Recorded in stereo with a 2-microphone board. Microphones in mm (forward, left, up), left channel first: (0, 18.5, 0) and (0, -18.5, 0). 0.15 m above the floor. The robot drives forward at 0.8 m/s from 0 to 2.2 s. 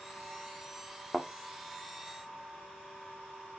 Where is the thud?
15° left (ahead or behind), 1.4 m.